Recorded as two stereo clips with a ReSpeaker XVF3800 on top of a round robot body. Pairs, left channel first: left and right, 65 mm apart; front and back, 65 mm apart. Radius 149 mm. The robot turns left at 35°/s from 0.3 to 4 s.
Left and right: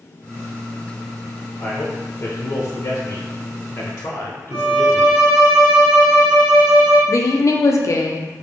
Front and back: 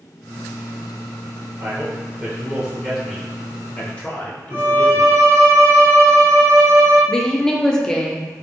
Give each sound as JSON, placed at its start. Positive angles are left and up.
{"t": 1.6, "sound": "a man speaking", "azimuth_deg": 130, "distance_m": 0.9}
{"t": 4.5, "sound": "a violin", "azimuth_deg": -145, "distance_m": 1.8}
{"t": 7.1, "sound": "a woman speaking", "azimuth_deg": 75, "distance_m": 0.6}